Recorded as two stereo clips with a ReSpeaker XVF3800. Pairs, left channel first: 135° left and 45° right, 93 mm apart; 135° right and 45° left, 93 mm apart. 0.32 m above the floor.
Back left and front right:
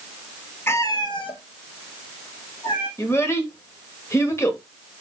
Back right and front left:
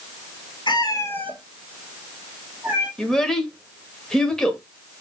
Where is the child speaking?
145° left, 0.9 m.